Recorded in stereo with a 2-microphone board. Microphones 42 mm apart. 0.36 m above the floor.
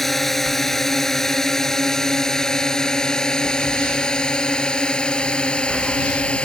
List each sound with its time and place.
0.0 s a drone: 5° left (ahead or behind); by 6.5 s 25° left (ahead or behind)